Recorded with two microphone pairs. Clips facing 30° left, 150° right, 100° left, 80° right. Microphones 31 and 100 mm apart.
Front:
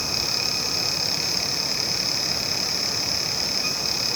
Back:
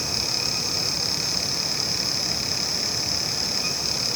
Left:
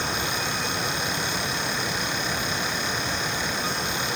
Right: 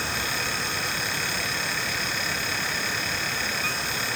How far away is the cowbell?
No cowbell in this recording.